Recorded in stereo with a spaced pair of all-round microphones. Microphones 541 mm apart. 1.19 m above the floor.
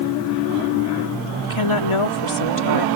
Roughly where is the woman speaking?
Left.